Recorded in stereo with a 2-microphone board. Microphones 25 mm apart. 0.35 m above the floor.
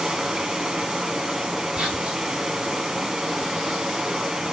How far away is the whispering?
About 2.0 m.